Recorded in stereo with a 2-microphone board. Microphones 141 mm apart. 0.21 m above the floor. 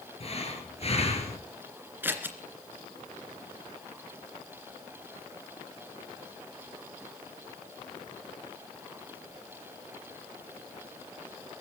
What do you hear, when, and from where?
0.2 s breathing: 45° left (ahead or behind), 4 m
2.0 s scissors: 15° right (ahead or behind), 2.5 m